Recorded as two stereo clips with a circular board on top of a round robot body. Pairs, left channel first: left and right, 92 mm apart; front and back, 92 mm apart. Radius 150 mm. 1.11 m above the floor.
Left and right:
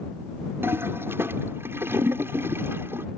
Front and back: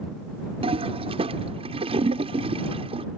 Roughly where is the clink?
No clink in this recording.